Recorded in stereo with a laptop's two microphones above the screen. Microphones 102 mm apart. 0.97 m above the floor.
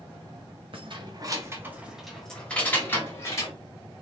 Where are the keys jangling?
60° right (ahead or behind), 0.9 m; by 3.5 s 30° left (ahead or behind), 1.6 m.